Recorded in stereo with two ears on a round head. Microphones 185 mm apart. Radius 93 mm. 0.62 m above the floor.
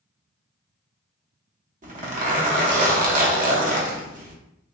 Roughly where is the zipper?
Right.